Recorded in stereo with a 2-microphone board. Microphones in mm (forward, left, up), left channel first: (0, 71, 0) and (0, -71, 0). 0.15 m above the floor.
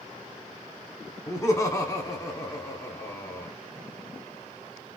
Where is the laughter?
25° left (ahead or behind), 1.0 m.